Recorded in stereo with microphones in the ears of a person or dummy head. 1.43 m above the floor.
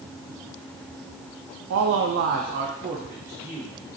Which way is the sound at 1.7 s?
70° right (ahead or behind).